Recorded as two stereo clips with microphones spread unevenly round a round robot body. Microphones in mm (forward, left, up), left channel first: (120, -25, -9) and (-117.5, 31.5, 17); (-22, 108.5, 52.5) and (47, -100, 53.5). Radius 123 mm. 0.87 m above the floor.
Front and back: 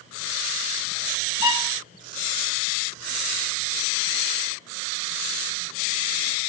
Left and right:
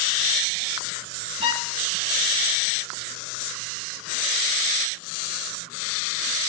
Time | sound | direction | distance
1.4 | a violin | 10° right | 2 m